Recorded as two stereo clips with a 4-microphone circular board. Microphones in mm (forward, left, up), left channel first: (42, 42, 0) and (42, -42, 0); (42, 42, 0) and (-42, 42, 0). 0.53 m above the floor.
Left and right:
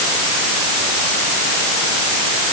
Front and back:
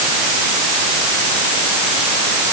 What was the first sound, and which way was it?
Only background noise.